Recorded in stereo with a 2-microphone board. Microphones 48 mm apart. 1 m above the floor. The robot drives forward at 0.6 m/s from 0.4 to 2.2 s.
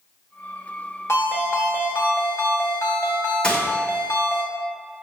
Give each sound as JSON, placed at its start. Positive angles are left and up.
{"t": 1.1, "sound": "a ringtone", "side_deg": 85, "distance_m": 2.0}
{"t": 3.4, "sound": "a gunshot", "side_deg": 20, "distance_m": 1.4}